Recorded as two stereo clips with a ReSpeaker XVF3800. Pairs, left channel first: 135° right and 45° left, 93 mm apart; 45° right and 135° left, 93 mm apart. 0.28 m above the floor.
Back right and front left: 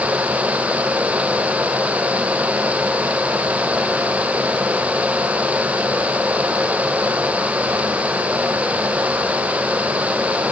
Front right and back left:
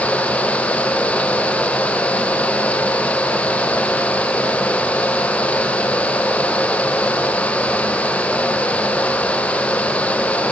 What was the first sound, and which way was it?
Only background noise.